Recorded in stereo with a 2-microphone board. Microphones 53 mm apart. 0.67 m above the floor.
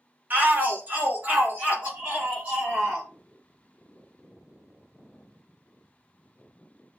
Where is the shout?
35° right (ahead or behind), 1.4 m; by 3.1 s 25° right (ahead or behind), 3 m.